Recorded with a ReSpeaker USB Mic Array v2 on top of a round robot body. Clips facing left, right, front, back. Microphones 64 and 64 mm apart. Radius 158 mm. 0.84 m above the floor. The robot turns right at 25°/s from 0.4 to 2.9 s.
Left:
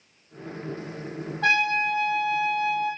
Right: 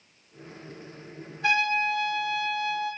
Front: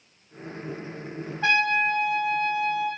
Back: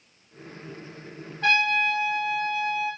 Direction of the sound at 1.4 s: 80° left.